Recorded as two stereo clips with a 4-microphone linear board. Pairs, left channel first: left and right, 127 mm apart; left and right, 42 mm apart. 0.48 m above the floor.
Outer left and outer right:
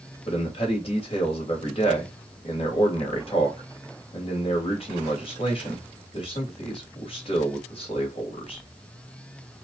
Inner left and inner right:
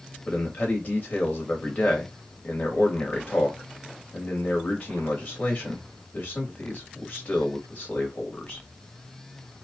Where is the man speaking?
45° left (ahead or behind), 2.5 m.